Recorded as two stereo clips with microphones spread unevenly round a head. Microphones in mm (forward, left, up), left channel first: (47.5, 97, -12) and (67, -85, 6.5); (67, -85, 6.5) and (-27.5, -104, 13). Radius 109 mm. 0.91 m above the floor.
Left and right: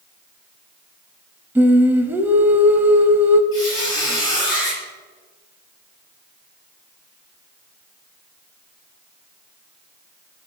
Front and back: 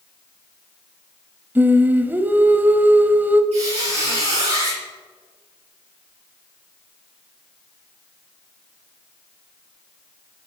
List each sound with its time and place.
1.6 s singing: 140° right, 0.7 m
3.5 s a squeak: 170° left, 6 m